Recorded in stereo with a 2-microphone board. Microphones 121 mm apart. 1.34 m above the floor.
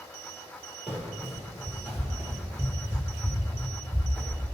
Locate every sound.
0.9 s running footsteps: centre (ahead or behind), 2.0 m; by 4.4 s 20° right (ahead or behind), 1.6 m